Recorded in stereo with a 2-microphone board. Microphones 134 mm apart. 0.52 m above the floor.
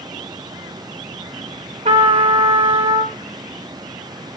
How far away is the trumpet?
About 1.2 m.